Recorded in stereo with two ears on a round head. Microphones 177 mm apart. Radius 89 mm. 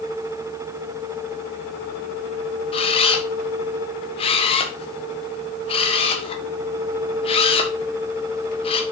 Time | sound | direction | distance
2.7 | a camera shutter | 30° left (ahead or behind) | 1.3 m